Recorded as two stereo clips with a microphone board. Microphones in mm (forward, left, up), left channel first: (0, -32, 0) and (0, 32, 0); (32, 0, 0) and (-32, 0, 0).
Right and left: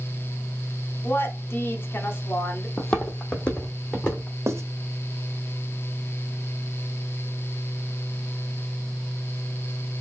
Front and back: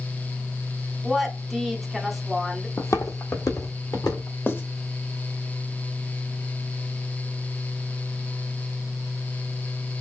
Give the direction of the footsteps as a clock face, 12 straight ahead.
1 o'clock.